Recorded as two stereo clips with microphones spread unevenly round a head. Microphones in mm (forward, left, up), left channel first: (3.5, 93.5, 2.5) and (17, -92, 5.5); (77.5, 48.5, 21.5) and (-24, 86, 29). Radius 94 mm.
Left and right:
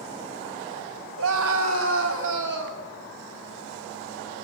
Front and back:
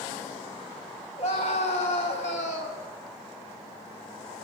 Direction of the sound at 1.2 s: 70° right.